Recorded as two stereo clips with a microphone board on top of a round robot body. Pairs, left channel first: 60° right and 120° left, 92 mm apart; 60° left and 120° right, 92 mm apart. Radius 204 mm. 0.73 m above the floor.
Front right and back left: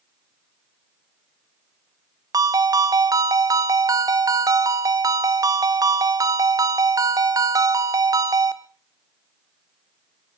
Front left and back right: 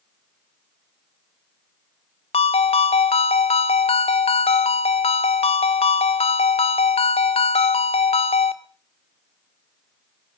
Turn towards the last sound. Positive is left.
turn(degrees=70)